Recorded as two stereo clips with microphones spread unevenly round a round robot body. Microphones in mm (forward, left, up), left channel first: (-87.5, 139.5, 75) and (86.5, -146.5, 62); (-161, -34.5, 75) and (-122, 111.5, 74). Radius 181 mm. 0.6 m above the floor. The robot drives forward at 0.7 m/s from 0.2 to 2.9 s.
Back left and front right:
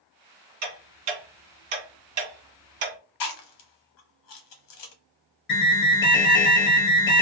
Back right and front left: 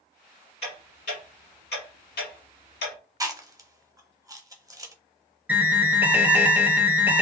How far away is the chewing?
About 1.0 m.